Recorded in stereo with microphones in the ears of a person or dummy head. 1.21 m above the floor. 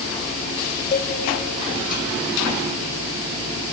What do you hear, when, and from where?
0.9 s a cowbell: 40° left (ahead or behind), 1.0 m